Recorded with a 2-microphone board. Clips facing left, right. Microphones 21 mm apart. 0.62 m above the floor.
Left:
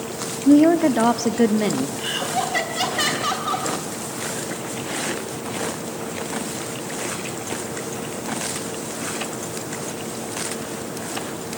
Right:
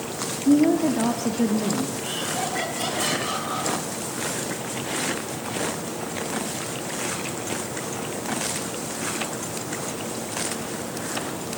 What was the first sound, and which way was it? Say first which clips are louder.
A woman speaking: left 5 dB; 40° left (ahead or behind).